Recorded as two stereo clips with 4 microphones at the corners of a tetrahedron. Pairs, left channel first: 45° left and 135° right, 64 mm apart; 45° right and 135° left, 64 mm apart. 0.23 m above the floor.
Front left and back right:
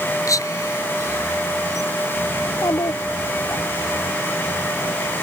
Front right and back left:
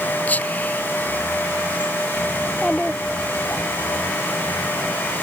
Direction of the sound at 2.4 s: 40° left.